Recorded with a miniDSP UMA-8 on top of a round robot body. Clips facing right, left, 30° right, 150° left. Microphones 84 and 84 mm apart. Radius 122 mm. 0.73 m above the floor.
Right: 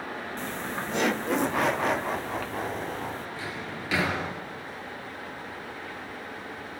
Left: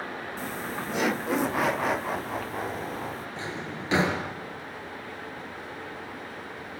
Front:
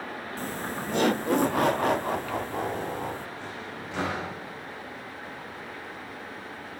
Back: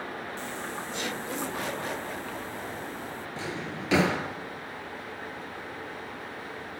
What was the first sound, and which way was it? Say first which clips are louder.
Laughter: even, front 3 dB; 5° left.